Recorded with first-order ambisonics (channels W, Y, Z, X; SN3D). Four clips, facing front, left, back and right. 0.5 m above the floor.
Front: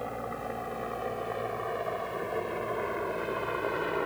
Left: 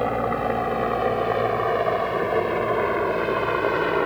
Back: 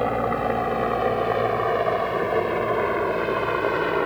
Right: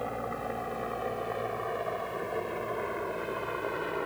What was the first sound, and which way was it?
A helicopter, 135° left.